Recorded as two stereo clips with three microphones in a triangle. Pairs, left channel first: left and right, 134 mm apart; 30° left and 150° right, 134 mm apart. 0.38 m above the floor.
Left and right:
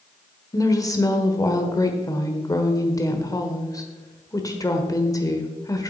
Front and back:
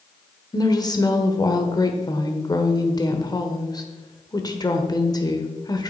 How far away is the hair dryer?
No hair dryer in this recording.